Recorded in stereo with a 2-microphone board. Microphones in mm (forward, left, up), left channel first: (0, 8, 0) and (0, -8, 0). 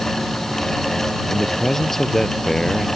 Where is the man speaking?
30° left (ahead or behind).